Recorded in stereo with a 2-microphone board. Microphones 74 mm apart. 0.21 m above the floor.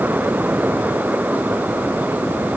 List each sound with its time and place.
Only background noise.